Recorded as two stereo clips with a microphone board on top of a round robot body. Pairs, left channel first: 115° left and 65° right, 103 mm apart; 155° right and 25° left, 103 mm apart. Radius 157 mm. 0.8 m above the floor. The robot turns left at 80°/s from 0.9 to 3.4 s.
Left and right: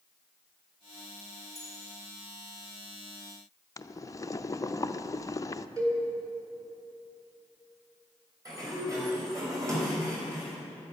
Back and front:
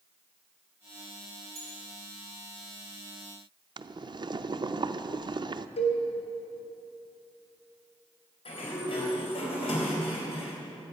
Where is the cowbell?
125° right, 2.5 m.